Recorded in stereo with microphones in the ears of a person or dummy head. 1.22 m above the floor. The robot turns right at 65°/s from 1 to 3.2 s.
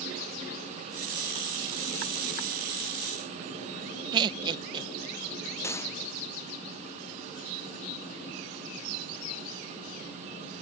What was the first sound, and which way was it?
Laughter, 25° right (ahead or behind).